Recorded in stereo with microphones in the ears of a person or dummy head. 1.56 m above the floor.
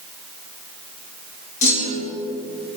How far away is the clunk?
About 1.7 m.